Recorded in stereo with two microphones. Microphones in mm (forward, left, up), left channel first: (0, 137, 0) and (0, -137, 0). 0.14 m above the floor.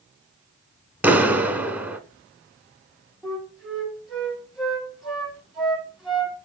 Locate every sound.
1.0 s a clap: 5° right (ahead or behind), 0.9 m
3.2 s a flute: centre (ahead or behind), 6 m